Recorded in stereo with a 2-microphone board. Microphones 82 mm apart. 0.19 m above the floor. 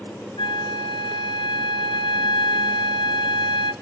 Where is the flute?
75° left (ahead or behind), 0.6 m.